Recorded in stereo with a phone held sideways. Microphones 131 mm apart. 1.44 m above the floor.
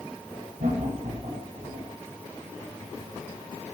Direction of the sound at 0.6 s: 80° right.